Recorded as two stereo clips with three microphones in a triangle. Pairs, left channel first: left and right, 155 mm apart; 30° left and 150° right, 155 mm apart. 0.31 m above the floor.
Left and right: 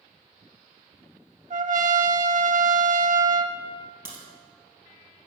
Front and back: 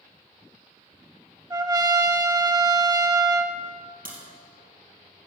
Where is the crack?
165° right, 2.5 m.